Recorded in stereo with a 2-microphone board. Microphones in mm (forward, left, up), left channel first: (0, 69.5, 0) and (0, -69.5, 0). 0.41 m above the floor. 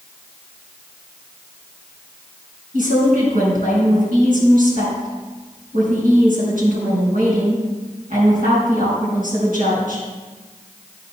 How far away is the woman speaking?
About 4 m.